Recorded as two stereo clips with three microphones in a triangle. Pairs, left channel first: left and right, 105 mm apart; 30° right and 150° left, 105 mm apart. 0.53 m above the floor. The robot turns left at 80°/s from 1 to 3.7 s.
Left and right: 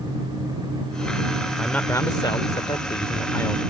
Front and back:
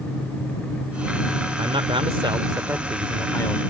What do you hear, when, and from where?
1.6 s a man speaking: 175° left; by 3.6 s 15° left